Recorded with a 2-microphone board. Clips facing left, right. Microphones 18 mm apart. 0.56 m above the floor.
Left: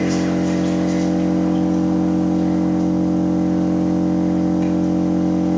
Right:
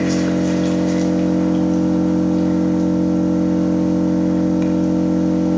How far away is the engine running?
About 1.3 m.